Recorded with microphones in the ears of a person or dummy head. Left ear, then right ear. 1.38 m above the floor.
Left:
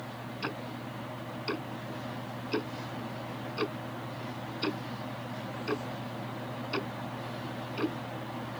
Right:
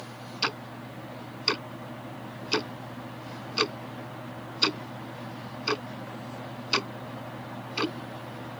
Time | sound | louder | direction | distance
0.4 | ticking | right 8 dB | 60° right (ahead or behind) | ?